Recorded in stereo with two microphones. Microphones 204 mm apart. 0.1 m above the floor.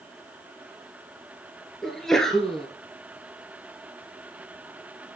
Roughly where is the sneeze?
Centre.